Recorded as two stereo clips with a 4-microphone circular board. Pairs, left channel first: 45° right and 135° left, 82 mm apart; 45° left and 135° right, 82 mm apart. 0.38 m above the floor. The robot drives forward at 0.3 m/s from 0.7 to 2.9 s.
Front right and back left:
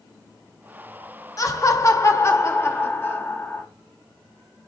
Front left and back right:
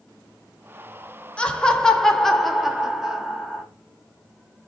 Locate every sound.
1.4 s laughter: 25° right, 1.1 m; by 3.7 s 55° right, 0.8 m